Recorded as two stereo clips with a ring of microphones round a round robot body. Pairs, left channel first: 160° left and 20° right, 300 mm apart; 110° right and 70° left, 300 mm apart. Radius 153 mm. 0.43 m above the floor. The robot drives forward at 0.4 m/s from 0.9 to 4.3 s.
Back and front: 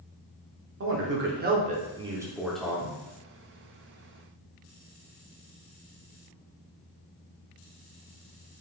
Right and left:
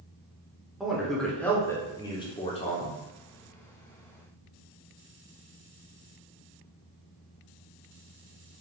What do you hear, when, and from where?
0.8 s a man speaking: 20° right, 0.9 m; by 3.0 s 140° right, 0.8 m